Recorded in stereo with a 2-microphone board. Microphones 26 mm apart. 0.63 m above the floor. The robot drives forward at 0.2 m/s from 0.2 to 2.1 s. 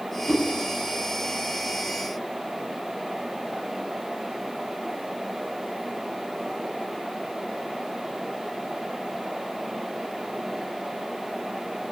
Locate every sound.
0.3 s a whoosh: 25° right (ahead or behind), 1.2 m